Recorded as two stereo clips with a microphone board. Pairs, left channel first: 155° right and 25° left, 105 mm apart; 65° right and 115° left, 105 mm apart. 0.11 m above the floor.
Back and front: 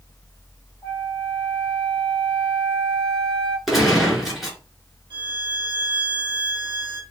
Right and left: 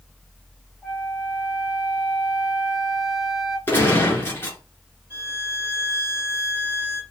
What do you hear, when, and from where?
0.8 s a flute: 25° left, 1.7 m
3.7 s a gunshot: 65° right, 1.6 m
5.1 s a violin: 50° left, 2.0 m